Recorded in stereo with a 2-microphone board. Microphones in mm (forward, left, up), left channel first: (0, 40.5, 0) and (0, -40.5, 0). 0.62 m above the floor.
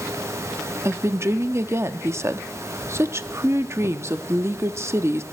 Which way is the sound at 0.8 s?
35° right (ahead or behind).